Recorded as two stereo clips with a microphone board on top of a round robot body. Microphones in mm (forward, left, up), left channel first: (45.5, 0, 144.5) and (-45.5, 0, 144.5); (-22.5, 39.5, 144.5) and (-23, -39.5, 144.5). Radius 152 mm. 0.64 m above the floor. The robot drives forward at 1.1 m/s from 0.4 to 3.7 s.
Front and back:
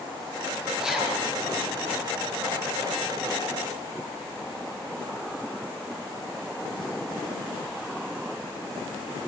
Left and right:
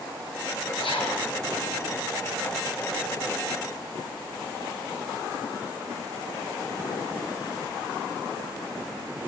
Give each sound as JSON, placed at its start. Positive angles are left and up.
{"t": 0.8, "sound": "a zipper", "azimuth_deg": 95, "distance_m": 7.5}